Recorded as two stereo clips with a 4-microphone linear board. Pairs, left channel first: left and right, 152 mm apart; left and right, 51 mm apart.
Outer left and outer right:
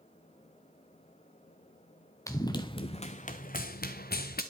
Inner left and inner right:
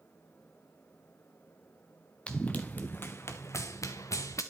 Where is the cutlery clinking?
I don't hear cutlery clinking.